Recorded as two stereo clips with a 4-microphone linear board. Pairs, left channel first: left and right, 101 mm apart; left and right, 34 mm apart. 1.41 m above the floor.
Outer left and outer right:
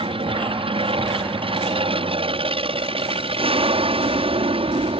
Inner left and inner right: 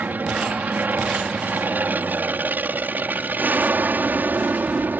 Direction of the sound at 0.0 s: 65° right (ahead or behind).